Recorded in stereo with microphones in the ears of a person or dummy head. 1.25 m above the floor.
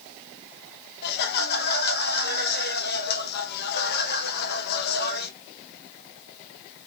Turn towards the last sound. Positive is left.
turn(degrees=55)  # may be behind; listen again after turning